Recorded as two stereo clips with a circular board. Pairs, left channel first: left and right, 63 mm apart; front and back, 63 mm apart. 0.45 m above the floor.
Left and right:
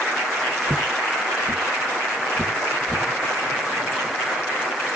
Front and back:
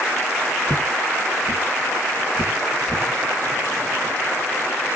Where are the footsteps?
40° right, 0.7 m; by 3.1 s 25° right, 2.5 m.